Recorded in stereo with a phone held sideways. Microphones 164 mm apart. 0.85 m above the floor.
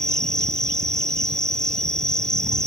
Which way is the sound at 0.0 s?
5° left (ahead or behind).